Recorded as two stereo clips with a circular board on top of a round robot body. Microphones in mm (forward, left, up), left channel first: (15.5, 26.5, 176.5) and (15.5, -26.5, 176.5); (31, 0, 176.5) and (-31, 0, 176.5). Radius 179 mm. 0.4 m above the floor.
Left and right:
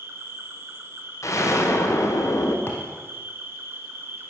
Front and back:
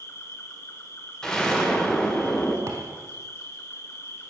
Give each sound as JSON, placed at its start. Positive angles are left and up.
{"t": 0.0, "sound": "an insect", "azimuth_deg": -45, "distance_m": 1.1}
{"t": 1.2, "sound": "an explosion", "azimuth_deg": 80, "distance_m": 1.3}
{"t": 2.7, "sound": "a thud", "azimuth_deg": 135, "distance_m": 0.8}